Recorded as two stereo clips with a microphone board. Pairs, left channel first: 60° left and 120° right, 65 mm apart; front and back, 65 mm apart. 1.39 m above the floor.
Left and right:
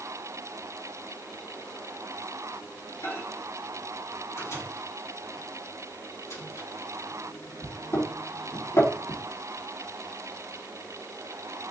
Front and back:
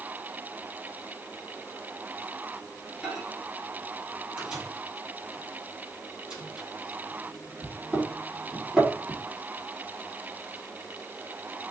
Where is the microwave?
105° left, 3.5 m.